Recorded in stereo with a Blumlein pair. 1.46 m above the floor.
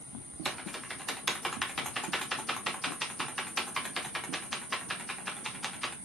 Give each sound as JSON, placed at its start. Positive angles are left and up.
{"t": 0.5, "sound": "typing on a keyboard", "azimuth_deg": 0, "distance_m": 1.0}